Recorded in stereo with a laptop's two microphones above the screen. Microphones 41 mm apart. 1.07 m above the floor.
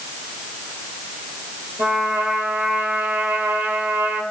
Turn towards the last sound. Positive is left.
turn(degrees=-70)  # may be behind; listen again after turning